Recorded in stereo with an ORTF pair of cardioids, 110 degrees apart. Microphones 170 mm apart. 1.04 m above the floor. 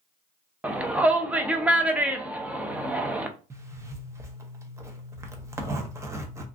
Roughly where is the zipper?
Ahead.